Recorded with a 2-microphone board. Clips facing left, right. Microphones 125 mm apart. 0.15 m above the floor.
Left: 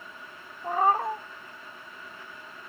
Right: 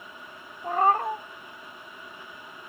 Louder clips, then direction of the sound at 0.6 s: Right 1 dB; 5° left (ahead or behind).